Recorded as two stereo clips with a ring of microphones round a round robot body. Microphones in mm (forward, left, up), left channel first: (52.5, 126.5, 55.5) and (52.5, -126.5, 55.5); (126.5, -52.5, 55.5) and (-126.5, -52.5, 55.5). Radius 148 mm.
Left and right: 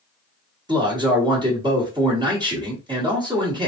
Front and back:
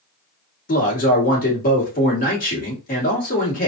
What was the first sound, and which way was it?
A man speaking, 25° right.